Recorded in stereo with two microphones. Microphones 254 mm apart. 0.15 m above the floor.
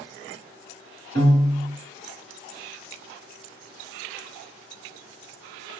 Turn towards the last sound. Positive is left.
turn(degrees=10)  # may be behind; listen again after turning